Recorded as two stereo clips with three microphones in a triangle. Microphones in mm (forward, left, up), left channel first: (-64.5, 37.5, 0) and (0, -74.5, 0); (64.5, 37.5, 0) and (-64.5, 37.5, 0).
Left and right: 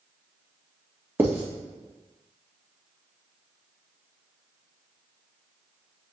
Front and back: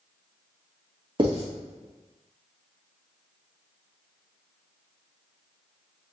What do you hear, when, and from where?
1.2 s writing: 135° right, 2 m